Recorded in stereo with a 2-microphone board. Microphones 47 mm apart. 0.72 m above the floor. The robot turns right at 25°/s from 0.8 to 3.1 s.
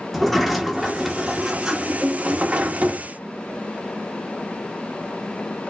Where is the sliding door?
Straight behind, 1.1 m; by 3.1 s 125° right, 1.1 m.